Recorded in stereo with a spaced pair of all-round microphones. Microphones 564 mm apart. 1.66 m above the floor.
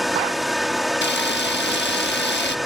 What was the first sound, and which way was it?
A fan, centre (ahead or behind).